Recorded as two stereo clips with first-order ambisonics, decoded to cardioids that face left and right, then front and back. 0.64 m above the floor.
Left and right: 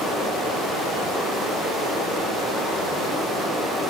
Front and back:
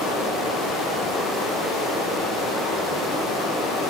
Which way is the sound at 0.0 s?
5° right.